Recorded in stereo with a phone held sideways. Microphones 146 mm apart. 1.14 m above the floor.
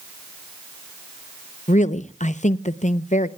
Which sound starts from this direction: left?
A woman speaking, at 1.7 s.